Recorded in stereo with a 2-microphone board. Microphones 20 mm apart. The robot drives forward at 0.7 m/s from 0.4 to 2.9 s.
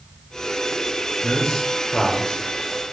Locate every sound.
1.2 s a man speaking: 50° left (ahead or behind), 2 m; by 2.4 s 60° left (ahead or behind), 1.9 m